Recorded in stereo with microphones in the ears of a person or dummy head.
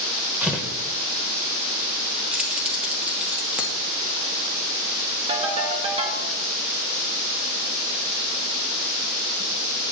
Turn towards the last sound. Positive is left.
turn(degrees=-30)  # may be behind; listen again after turning